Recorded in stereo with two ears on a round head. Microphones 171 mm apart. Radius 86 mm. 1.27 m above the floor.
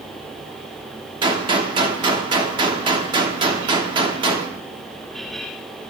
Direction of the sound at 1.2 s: 25° right (ahead or behind).